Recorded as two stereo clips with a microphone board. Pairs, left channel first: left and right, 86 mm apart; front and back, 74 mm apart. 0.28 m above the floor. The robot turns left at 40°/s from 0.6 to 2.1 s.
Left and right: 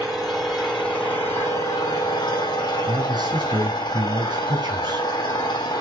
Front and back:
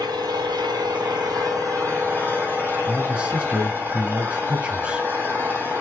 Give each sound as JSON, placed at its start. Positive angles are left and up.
{"t": 0.0, "sound": "an engine running", "azimuth_deg": 180, "distance_m": 7.5}
{"t": 2.9, "sound": "a man speaking", "azimuth_deg": -105, "distance_m": 2.0}